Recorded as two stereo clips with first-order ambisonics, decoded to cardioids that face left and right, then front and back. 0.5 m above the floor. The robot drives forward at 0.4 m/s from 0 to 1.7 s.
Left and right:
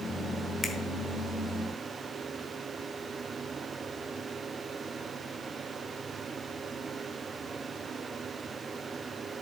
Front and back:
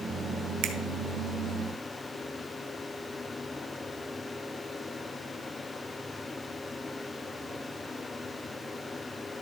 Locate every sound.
0.6 s a finger snap: 165° left, 1.1 m; by 0.7 s 170° left, 1.1 m